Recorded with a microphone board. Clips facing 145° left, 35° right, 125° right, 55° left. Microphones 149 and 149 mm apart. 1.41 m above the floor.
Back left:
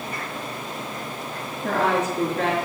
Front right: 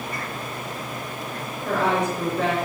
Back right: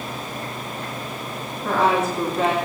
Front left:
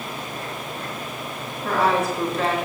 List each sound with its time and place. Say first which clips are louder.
1.6 s a woman speaking: even, back right 1 dB; 145° left, 2.5 m